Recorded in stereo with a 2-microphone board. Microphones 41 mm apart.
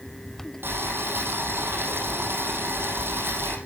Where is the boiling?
70° right (ahead or behind), 5 m.